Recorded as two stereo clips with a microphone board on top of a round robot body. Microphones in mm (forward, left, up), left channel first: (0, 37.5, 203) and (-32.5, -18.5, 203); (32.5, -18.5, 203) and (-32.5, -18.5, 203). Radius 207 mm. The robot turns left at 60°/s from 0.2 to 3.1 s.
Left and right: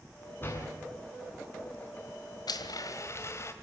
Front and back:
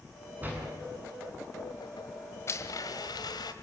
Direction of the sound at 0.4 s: 115° left.